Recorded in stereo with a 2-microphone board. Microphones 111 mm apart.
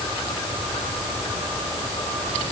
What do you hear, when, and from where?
Only background noise.